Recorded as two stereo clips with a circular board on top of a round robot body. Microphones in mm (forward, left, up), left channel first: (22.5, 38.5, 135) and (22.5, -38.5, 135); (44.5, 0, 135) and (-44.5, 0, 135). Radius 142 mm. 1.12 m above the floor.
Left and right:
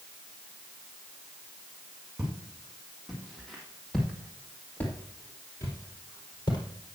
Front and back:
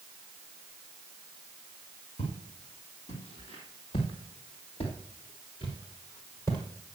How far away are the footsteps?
About 3 m.